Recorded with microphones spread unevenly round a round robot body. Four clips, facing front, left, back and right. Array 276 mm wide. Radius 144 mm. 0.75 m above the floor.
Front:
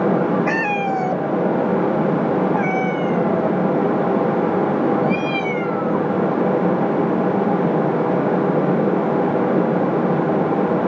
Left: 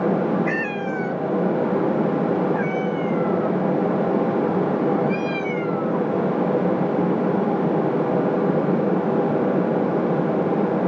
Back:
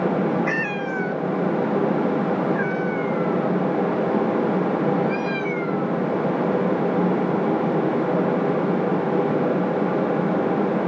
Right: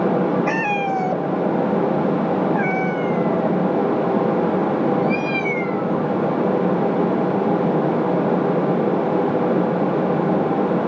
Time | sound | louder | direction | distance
0.5 | a cat meowing | right 4 dB, front 5 dB | 55° right | ?